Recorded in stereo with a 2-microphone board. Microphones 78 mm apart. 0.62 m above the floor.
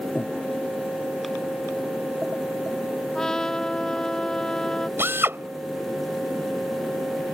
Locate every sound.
0.1 s breathing: 20° left (ahead or behind)
3.1 s a trumpet: 10° left (ahead or behind)
5.0 s a drill: 30° right (ahead or behind)